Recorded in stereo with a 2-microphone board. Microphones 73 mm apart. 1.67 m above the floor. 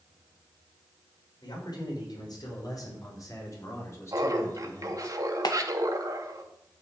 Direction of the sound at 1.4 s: 65° left (ahead or behind).